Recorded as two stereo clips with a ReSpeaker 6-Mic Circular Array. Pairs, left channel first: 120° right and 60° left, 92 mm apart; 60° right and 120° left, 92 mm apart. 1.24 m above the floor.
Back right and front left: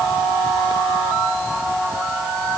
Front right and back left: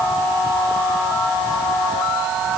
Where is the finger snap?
I don't hear a finger snap.